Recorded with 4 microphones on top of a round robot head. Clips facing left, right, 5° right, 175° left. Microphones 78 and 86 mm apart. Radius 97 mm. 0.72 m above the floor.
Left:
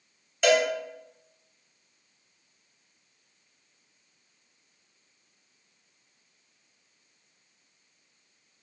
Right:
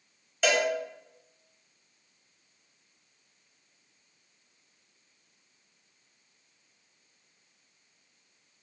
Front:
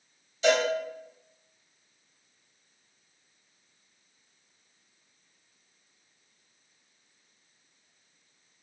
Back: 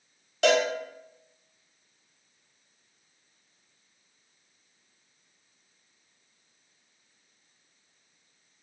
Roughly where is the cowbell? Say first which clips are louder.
Left 4 dB, back 1 dB; behind.